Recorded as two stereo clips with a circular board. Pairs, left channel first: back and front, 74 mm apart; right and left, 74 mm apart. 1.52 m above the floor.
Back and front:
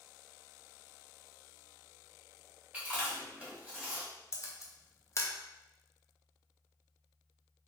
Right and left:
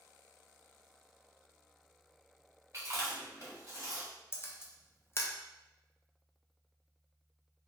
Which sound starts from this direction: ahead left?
Chewing, at 2.7 s.